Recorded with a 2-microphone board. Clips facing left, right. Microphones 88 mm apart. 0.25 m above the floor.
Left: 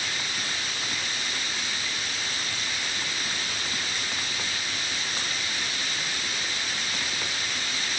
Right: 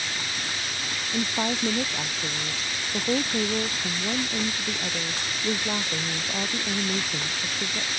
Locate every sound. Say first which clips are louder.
1.1 s a woman speaking: right 7 dB; 85° right